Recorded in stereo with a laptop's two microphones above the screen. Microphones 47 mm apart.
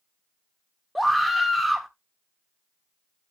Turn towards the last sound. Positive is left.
turn(degrees=0)  # may be behind; listen again after turning